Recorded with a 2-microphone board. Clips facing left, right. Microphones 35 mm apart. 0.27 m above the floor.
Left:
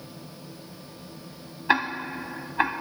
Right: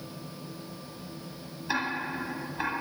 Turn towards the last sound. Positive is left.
turn(degrees=55)  # may be behind; listen again after turning